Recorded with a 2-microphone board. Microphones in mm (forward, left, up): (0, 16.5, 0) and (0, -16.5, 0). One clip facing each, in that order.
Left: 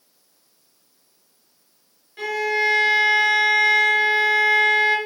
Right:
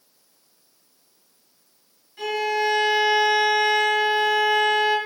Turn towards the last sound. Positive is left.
turn(degrees=30)  # may be behind; listen again after turning